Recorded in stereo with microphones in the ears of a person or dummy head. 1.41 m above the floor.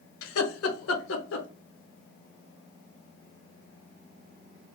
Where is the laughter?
75° left (ahead or behind), 1.0 m; by 1.5 s 65° left (ahead or behind), 1.2 m.